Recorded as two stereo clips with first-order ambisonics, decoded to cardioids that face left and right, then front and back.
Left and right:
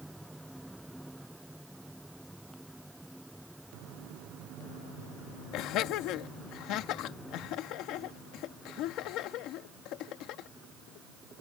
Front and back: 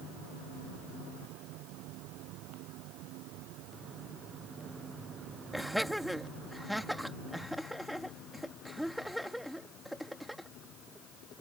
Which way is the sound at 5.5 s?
90° left.